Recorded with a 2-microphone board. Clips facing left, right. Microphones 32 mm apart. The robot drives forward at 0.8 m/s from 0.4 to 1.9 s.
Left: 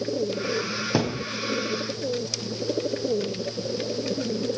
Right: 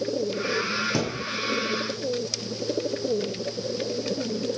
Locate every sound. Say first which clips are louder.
0.9 s a thud: left 2 dB; 30° left (ahead or behind), 2.5 m